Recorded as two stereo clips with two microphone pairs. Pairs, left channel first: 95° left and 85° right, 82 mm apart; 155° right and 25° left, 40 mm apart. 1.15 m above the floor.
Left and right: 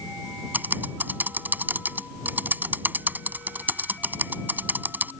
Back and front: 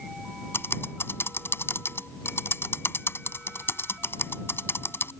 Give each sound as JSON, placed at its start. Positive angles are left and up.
{"t": 0.5, "sound": "typing on a keyboard", "azimuth_deg": -150}